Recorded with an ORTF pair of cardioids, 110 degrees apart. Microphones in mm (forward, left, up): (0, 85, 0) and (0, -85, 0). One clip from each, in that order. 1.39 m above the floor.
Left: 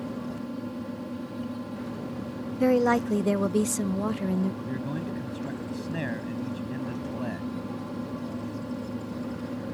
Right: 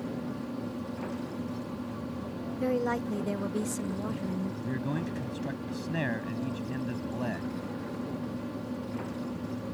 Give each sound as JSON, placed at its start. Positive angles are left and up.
{"t": 0.0, "sound": "a fan", "azimuth_deg": 20}
{"t": 2.6, "sound": "a woman speaking", "azimuth_deg": 40}
{"t": 4.6, "sound": "a man speaking", "azimuth_deg": -10}